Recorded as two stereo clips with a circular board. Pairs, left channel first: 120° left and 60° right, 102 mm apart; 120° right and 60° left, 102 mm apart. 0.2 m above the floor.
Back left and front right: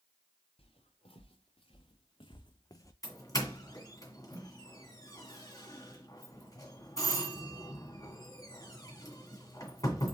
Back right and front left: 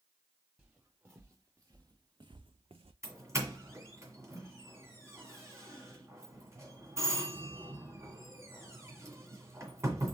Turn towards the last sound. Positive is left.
turn(degrees=100)